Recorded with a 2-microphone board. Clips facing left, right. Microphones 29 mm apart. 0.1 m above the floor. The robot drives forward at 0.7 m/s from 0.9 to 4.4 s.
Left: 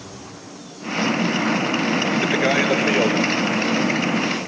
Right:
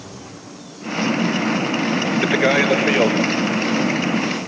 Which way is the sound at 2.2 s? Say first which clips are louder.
Right 4 dB; 15° right (ahead or behind).